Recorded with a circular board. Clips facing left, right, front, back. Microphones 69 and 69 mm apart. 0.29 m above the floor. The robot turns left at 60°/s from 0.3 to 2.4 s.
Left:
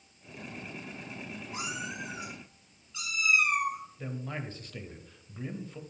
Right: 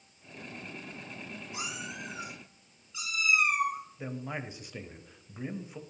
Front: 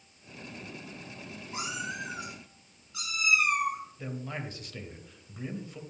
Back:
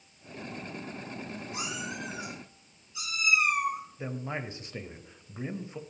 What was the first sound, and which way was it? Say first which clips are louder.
A cat meowing: left 3 dB, front 3 dB; 50° left.